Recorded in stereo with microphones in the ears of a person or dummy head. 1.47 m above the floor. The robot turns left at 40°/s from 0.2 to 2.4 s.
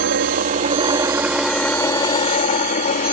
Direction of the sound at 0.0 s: 50° right (ahead or behind).